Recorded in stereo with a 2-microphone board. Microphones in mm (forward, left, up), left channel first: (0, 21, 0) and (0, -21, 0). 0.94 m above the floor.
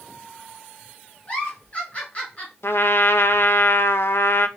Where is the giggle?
30° left (ahead or behind), 2.5 m.